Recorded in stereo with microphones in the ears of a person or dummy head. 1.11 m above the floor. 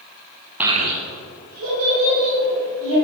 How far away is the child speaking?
About 0.5 m.